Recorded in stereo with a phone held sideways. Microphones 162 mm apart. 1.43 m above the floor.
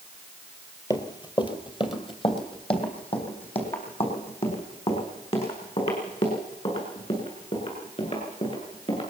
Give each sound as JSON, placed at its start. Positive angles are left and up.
{"t": 0.9, "sound": "running footsteps", "side_deg": 25, "distance_m": 1.7}